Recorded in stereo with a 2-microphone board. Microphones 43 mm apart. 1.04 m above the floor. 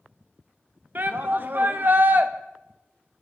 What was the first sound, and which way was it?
A shout, 50° right (ahead or behind).